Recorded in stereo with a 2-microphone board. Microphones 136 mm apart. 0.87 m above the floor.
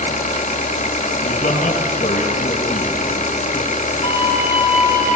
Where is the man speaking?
70° left (ahead or behind), 6.5 m.